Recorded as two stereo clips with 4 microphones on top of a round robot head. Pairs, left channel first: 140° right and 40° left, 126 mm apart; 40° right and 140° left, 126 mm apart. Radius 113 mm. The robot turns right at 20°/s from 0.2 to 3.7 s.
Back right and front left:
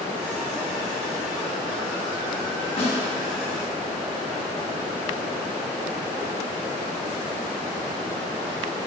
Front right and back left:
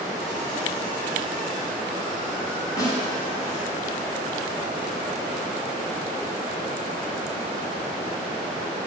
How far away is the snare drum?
About 1.7 m.